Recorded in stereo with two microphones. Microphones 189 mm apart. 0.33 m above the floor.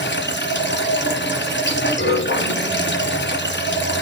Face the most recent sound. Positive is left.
turn(degrees=75)  # may be behind; listen again after turning